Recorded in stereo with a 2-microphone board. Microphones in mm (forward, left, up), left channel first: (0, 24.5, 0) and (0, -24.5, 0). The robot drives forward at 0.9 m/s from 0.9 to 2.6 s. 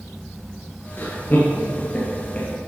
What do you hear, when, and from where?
1.0 s laughter: 45° left (ahead or behind), 1.5 m; by 2.6 s 30° left (ahead or behind), 2.5 m